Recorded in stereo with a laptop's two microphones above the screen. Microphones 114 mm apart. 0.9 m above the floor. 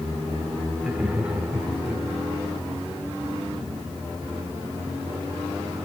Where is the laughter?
10° right (ahead or behind), 3 m; by 2.0 s 5° right (ahead or behind), 4 m.